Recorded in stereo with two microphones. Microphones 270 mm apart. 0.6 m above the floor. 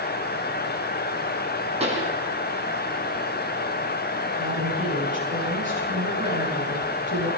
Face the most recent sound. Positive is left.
turn(degrees=-30)  # may be behind; listen again after turning